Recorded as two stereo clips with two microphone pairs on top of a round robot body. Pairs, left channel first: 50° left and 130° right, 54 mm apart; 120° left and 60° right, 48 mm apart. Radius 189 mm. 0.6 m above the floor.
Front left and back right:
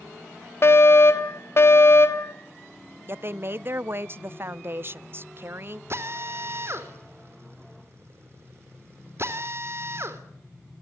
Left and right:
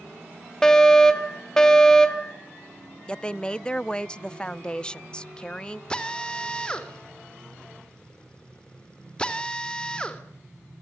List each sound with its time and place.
0.6 s a fire alarm: 50° left, 3 m
3.1 s a woman speaking: 170° right, 0.8 m
5.9 s a drill: 170° right, 3.5 m